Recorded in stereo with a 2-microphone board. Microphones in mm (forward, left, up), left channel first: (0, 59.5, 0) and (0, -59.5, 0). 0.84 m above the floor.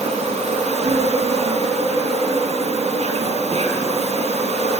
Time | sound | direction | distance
0.0 | an insect | 65° right (ahead or behind) | 1.3 m